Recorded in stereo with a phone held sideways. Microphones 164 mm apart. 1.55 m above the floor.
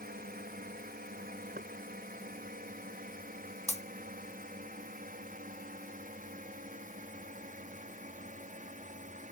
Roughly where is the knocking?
Right.